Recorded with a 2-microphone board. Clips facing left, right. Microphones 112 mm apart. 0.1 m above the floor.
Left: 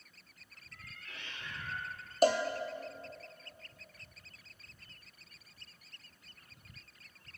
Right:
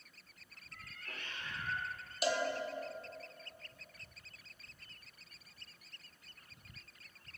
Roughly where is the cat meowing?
Right.